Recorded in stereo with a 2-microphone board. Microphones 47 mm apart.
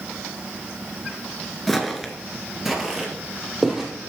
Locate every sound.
1.7 s footsteps: 5° left (ahead or behind), 1.1 m; by 3.9 s 10° right (ahead or behind), 3 m